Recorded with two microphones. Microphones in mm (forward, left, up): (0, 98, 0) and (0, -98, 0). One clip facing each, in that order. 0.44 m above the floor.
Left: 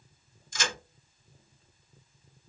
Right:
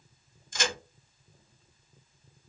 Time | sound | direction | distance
0.5 | a crack | 55° right (ahead or behind) | 1.8 m